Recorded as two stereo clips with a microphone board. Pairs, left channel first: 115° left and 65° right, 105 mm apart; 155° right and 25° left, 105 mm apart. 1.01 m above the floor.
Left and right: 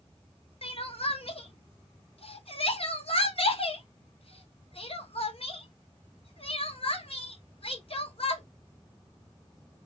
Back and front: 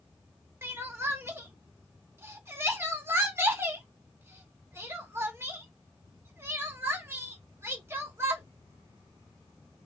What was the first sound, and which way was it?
Crying, 90° left.